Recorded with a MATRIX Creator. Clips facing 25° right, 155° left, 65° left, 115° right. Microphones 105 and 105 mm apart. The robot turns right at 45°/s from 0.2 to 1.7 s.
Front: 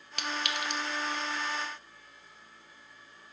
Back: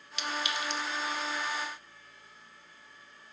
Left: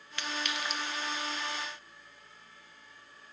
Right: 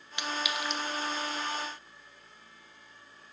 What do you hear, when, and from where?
0.2 s a clink: 45° right, 0.5 m; by 0.8 s 15° right, 0.5 m